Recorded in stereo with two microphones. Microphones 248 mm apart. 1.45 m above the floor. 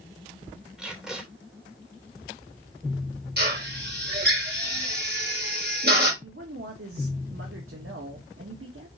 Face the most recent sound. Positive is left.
turn(degrees=-65)  # may be behind; listen again after turning